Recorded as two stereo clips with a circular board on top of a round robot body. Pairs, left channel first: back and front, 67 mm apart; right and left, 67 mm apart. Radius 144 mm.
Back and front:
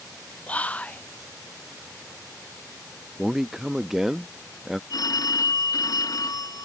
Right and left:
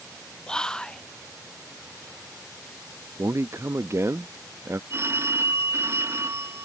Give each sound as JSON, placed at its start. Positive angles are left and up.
{"t": 0.5, "sound": "whispering", "azimuth_deg": -150}
{"t": 3.2, "sound": "a man speaking", "azimuth_deg": 80}
{"t": 4.9, "sound": "a phone ringing", "azimuth_deg": 145}